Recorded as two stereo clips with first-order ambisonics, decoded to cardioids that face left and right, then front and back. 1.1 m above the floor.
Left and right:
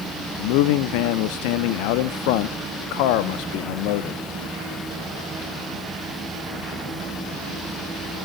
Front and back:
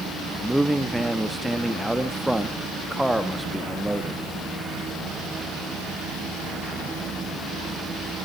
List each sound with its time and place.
0.4 s a man speaking: 95° left, 1.3 m